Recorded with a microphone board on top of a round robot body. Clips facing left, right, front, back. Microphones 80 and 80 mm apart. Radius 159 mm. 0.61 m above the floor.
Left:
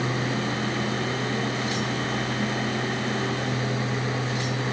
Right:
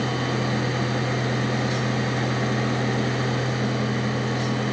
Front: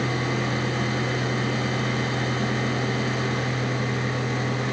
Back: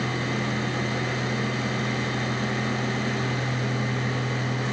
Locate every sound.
Only background noise.